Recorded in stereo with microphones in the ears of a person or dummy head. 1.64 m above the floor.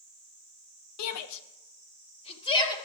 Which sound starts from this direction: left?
A shout, at 1.0 s.